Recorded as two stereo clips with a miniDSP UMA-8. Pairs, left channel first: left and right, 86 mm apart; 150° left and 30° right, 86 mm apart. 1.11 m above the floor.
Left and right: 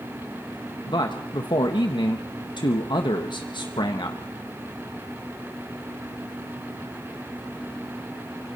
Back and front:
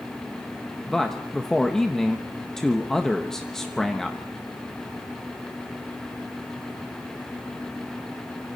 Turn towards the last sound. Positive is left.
turn(degrees=65)